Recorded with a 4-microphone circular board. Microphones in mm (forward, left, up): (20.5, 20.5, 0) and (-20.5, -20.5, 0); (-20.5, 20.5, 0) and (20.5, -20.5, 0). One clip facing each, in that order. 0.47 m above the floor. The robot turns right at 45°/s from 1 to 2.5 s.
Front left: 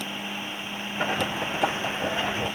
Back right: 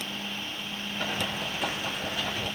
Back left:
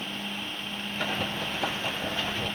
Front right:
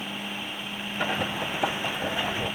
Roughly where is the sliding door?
No sliding door in this recording.